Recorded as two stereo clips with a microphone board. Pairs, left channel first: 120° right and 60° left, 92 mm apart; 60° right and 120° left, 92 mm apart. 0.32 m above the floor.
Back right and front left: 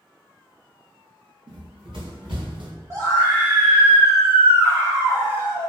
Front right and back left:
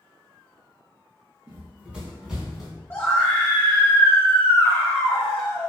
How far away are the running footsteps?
About 1.4 m.